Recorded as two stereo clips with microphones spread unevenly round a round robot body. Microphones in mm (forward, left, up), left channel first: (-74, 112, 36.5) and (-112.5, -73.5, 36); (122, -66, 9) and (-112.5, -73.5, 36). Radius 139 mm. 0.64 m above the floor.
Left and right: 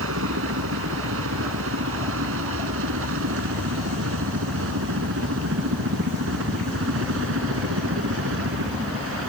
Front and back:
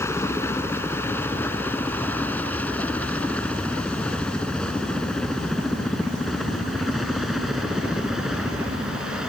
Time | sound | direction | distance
0.0 | a helicopter | 80° right | ?